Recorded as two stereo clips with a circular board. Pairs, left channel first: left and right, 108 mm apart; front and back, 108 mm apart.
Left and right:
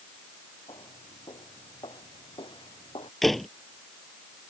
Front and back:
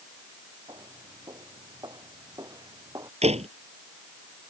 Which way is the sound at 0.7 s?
130° left.